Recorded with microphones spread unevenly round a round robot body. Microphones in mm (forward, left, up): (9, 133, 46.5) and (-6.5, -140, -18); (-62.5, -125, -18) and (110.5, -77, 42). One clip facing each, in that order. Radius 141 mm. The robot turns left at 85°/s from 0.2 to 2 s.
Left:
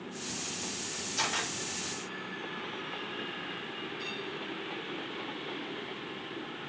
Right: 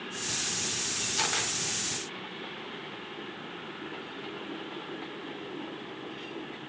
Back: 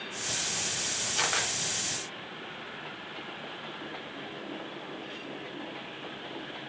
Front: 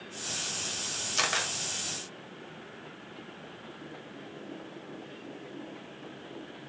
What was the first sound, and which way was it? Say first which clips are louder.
A camera shutter: right 1 dB, even; 30° right.